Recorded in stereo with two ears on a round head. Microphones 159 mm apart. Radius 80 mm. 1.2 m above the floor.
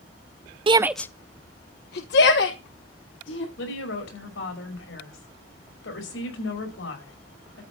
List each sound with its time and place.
0.7 s a shout: 30° right (ahead or behind), 0.5 m; by 3.5 s 75° left (ahead or behind), 2.5 m
3.6 s a woman speaking: 80° left, 5.5 m